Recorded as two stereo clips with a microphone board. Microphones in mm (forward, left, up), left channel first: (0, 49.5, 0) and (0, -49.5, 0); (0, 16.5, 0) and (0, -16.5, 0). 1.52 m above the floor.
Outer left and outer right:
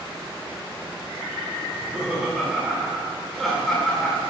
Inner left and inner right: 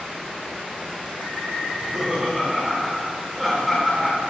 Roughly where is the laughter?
Centre.